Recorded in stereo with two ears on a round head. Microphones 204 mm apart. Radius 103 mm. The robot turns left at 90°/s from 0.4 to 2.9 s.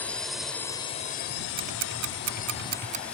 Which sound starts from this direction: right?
Ticking, at 1.6 s.